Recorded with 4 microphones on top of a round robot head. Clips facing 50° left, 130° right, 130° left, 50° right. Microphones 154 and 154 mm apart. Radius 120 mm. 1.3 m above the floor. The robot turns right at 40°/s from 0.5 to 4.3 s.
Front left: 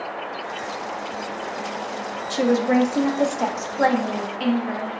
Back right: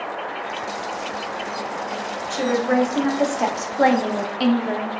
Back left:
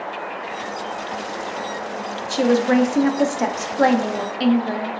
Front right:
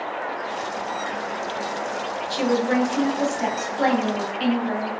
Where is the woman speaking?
100° left, 0.6 m; by 4.9 s straight behind, 0.6 m.